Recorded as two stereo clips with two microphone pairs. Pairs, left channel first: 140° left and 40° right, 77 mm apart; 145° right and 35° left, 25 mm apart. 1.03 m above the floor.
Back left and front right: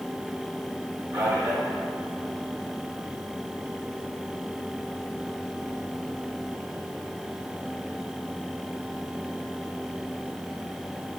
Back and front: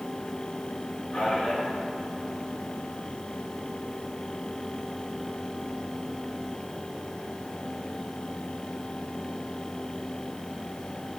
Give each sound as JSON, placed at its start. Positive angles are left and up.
{"t": 1.1, "sound": "a man speaking", "azimuth_deg": -90, "distance_m": 2.5}